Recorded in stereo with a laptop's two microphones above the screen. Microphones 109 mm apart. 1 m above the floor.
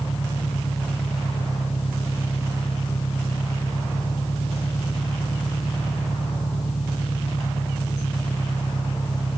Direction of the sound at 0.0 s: 80° left.